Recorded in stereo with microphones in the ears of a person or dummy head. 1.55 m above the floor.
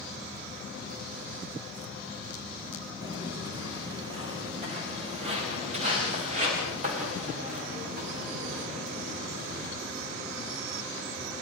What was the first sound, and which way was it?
Footsteps, 25° right (ahead or behind).